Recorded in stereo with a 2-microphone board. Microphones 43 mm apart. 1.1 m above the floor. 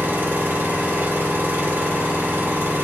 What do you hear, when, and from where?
0.0 s an engine running: 60° right (ahead or behind), 1.9 m